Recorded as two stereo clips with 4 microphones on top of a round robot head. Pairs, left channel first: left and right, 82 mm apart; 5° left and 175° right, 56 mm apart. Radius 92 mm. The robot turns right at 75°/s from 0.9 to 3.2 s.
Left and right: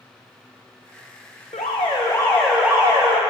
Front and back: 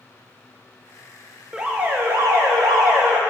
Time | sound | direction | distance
1.5 | an alarm | 110° left | 0.6 m